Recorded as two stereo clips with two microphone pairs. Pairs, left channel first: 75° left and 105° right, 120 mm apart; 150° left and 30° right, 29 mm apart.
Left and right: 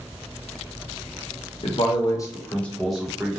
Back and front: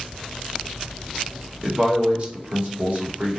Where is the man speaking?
45° left, 0.7 m; by 3.4 s 20° right, 1.0 m.